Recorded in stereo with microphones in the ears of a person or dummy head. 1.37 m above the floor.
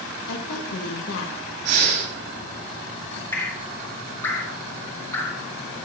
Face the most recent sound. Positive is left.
turn(degrees=15)  # may be behind; listen again after turning